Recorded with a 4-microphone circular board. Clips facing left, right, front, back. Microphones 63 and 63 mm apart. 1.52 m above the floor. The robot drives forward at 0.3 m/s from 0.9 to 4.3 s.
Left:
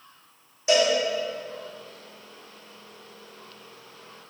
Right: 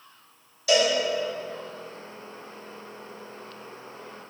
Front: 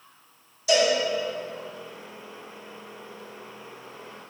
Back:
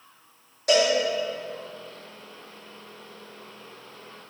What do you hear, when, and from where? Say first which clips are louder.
0.7 s a cowbell: left 1 dB, even; 155° left, 3.5 m